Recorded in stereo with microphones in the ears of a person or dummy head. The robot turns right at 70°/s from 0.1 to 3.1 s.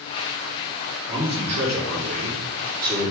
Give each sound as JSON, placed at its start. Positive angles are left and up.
{"t": 1.1, "sound": "a man speaking", "azimuth_deg": -165, "distance_m": 2.5}